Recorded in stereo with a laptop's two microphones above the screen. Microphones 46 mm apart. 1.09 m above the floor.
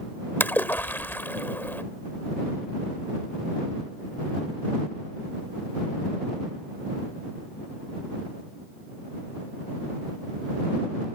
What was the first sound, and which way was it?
A splash, 50° left (ahead or behind).